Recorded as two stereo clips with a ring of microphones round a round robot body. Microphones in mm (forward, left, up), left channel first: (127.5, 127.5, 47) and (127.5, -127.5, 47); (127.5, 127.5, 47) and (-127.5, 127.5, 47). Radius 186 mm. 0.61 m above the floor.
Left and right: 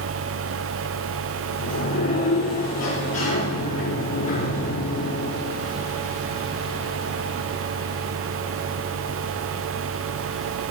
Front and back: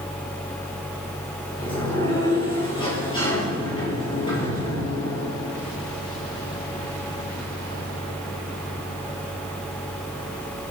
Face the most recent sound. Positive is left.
turn(degrees=70)